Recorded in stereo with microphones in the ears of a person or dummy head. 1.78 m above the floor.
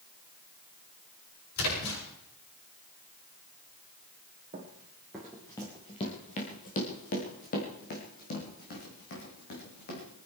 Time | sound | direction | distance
1.6 | a splash | 85° left | 8 m
4.5 | running footsteps | 20° right (ahead or behind) | 1.8 m